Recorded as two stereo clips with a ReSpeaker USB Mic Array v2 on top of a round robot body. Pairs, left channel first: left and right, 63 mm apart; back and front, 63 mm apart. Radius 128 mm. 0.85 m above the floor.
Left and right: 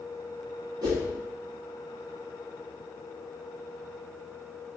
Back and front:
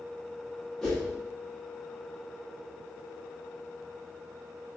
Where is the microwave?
I don't hear a microwave.